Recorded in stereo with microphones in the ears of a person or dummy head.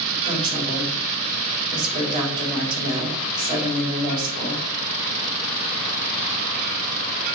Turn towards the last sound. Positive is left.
turn(degrees=-25)  # may be behind; listen again after turning